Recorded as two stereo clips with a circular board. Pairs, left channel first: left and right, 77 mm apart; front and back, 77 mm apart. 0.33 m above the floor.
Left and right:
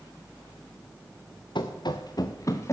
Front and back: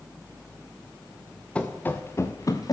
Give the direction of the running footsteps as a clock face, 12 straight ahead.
9 o'clock.